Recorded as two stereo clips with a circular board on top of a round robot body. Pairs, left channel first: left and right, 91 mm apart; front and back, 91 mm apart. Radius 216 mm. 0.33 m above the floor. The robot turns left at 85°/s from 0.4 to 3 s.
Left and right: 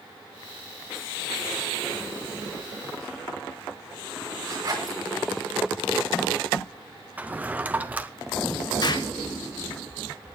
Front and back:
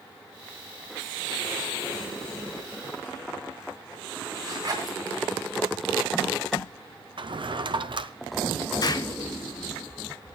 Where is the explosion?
50° left, 0.7 m.